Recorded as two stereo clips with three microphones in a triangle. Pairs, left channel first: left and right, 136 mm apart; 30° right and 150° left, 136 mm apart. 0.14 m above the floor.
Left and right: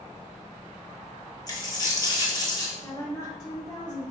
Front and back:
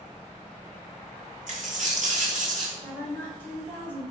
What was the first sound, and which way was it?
A dropped coin, 150° left.